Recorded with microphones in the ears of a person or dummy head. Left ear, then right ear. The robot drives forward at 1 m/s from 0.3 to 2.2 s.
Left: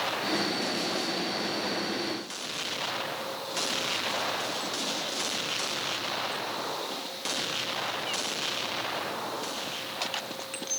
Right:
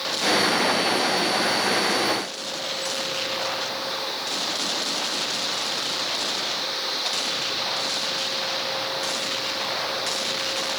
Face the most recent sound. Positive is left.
No sound to turn to.